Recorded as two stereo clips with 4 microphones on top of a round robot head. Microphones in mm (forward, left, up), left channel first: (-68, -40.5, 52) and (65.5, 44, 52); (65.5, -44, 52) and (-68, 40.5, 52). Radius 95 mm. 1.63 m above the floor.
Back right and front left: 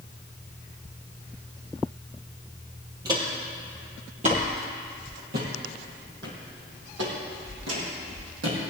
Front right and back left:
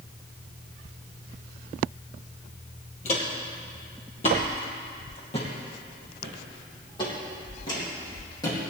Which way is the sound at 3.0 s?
25° right.